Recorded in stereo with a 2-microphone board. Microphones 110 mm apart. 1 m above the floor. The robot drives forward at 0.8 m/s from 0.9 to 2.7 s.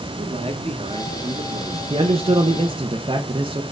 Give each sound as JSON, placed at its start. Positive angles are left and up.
{"t": 0.2, "sound": "a man speaking", "side_deg": -75, "distance_m": 1.4}
{"t": 1.9, "sound": "a man speaking", "side_deg": -55, "distance_m": 0.7}